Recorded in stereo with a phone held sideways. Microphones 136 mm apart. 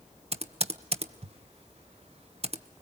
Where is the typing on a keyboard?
50° right (ahead or behind), 1.1 m.